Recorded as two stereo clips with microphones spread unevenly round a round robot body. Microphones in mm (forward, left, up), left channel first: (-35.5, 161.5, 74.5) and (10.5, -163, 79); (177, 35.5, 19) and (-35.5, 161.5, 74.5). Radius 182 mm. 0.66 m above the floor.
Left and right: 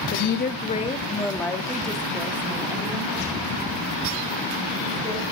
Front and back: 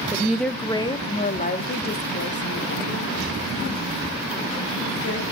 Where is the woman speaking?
60° left, 0.8 m; by 5.2 s 10° right, 3 m.